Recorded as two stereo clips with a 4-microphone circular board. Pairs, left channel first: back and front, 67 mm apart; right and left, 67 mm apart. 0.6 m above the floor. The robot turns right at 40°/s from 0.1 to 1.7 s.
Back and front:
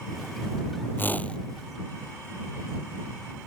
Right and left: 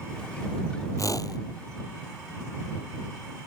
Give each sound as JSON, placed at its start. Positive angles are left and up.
{"t": 1.0, "sound": "a whoosh", "azimuth_deg": -120}